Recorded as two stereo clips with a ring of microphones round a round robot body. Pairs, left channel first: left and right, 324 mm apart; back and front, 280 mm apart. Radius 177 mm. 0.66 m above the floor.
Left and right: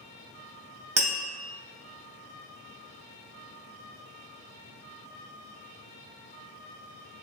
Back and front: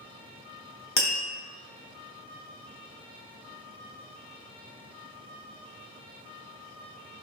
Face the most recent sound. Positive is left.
turn(degrees=-140)